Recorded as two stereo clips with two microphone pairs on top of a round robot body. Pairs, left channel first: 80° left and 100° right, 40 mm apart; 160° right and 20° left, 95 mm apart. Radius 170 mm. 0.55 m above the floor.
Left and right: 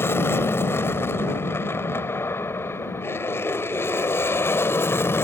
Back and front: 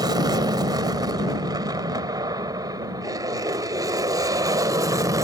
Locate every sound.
0.0 s an aircraft: 65° left; by 5.2 s 70° left